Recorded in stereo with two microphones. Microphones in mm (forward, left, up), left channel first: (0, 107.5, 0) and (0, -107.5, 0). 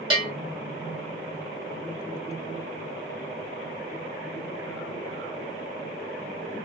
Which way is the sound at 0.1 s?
25° right (ahead or behind).